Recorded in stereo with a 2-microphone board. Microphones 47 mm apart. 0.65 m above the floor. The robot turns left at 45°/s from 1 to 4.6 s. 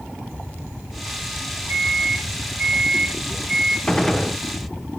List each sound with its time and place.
1.7 s a microwave: 100° right, 1.6 m; by 3.8 s 170° left, 1.6 m
3.9 s a gunshot: 15° left (ahead or behind), 0.5 m; by 4.4 s 5° right (ahead or behind), 0.5 m